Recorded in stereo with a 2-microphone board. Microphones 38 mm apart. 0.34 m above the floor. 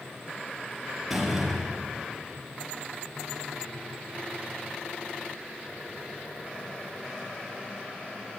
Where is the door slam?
5° right (ahead or behind), 5.5 m.